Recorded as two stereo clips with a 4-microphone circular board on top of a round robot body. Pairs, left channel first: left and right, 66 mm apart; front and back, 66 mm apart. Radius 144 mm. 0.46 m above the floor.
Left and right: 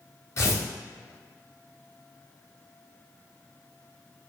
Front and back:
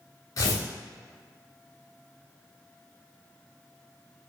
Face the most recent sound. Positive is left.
turn(degrees=40)